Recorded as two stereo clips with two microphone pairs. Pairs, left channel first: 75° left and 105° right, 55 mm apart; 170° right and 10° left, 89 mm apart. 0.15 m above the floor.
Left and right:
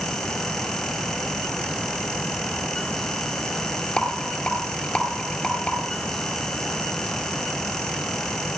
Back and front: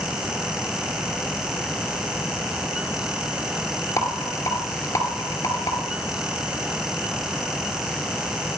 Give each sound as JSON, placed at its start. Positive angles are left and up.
{"t": 4.0, "sound": "a rattle", "azimuth_deg": 145, "distance_m": 2.5}